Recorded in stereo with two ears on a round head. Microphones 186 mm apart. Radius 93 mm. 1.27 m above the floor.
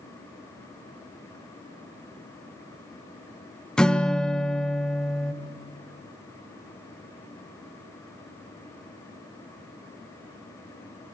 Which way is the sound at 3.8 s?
5° left (ahead or behind).